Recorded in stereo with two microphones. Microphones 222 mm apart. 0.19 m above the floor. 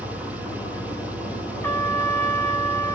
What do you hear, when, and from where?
0.0 s an engine running: 5° right (ahead or behind), 1.6 m
1.6 s a trumpet: 10° left (ahead or behind), 1.2 m